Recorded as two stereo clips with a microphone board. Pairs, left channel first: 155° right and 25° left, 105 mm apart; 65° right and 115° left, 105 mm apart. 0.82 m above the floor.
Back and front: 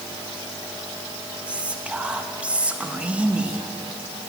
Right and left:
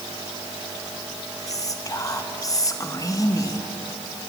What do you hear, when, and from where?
1.5 s whispering: 45° right, 0.7 m